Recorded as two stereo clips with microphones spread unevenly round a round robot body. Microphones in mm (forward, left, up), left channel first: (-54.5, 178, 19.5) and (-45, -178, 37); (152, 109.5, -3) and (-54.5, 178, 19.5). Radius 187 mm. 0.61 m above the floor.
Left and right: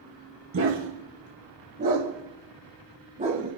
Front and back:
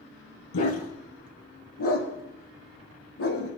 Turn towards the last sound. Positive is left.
turn(degrees=-15)